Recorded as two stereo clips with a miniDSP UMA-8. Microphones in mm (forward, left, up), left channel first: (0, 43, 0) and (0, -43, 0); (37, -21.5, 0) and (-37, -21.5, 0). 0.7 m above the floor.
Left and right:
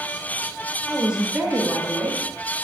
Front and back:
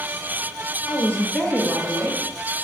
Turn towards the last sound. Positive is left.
turn(degrees=-155)